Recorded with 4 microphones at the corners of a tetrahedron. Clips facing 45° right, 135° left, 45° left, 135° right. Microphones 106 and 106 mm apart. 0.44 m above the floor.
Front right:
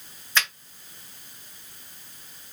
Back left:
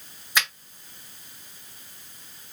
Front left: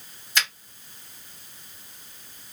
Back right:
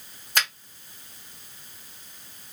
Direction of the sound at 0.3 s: 150° right.